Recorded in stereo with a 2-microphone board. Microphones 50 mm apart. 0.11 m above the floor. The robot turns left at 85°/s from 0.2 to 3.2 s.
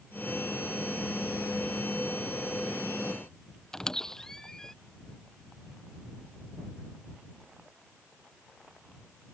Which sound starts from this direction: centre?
A squeak, at 3.7 s.